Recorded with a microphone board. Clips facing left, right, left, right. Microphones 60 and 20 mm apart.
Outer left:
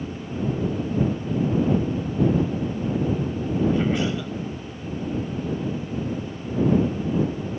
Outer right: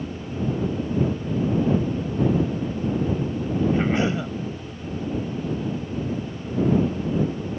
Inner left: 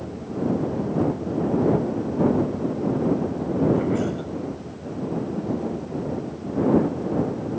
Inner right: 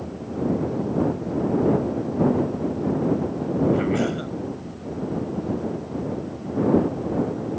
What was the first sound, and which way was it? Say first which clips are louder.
A cough: outer right 1 dB, inner right 1 dB; 30° right (ahead or behind).